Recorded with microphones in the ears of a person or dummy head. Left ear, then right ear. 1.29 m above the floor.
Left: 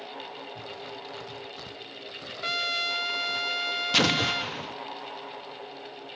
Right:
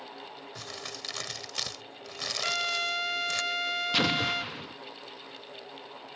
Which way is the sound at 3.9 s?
10° left (ahead or behind).